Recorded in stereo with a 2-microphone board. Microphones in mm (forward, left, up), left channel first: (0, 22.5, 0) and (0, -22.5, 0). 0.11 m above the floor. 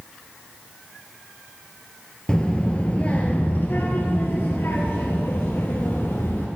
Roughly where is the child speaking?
Centre.